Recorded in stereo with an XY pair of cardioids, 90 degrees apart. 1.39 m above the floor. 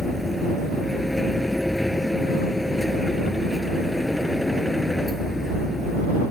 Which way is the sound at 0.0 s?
10° left.